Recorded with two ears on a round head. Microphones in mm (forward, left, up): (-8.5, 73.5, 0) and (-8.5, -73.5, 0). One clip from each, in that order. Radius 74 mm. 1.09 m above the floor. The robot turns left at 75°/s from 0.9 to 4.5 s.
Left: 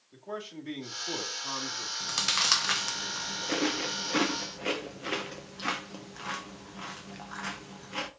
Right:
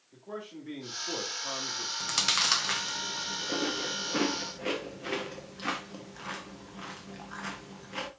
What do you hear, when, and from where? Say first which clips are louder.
0.1 s a man speaking: left 2 dB; 75° left, 2.0 m; by 1.9 s straight ahead, 2.0 m
2.0 s chewing: right 1 dB; 15° right (ahead or behind), 0.7 m; by 8.1 s 10° left (ahead or behind), 0.7 m